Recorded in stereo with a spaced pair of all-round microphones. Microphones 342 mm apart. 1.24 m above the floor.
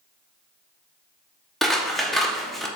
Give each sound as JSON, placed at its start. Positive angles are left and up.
{"t": 1.6, "sound": "scissors", "side_deg": 0, "distance_m": 0.5}